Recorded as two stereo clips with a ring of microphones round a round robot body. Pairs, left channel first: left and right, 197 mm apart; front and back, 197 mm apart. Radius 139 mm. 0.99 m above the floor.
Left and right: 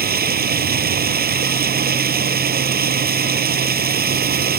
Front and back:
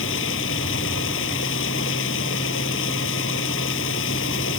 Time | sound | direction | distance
0.0 | running water | 50° right | ?